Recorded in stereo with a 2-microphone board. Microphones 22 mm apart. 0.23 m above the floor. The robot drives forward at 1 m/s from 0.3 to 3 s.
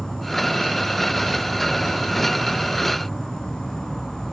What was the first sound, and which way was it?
An insect, 70° left (ahead or behind).